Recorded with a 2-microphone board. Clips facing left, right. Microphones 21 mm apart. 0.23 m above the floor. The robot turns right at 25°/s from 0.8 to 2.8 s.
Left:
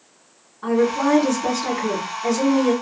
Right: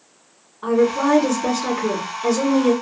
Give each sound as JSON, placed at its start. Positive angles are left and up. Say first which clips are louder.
{"t": 0.6, "sound": "a woman speaking", "louder": "right 1 dB", "azimuth_deg": -155, "distance_m": 2.5}